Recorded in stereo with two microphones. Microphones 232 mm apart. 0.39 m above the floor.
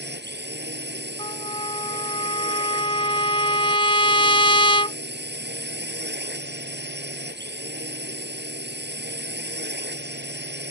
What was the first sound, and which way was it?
A drone, 45° right (ahead or behind).